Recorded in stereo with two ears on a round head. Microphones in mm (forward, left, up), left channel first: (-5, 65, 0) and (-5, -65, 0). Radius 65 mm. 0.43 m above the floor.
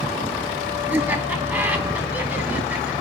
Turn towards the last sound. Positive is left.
turn(degrees=-15)  # may be behind; listen again after turning